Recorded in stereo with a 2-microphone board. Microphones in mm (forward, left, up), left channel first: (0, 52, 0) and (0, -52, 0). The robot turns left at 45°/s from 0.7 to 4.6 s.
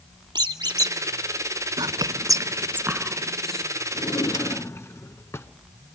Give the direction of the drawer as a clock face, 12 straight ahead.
10 o'clock.